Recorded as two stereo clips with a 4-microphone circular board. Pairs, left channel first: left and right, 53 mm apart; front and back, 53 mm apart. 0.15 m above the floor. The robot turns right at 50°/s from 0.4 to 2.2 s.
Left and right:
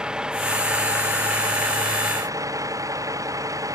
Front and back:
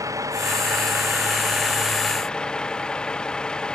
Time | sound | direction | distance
0.0 | a vehicle | 165° right | ?